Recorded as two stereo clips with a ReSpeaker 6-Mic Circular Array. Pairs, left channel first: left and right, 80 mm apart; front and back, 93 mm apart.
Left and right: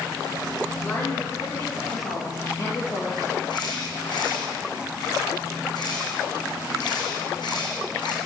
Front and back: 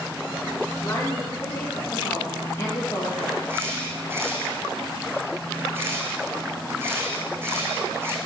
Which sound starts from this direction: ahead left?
A woman speaking, at 0.8 s.